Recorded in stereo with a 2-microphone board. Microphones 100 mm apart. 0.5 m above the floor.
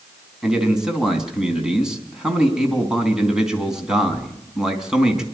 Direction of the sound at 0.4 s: 5° right (ahead or behind).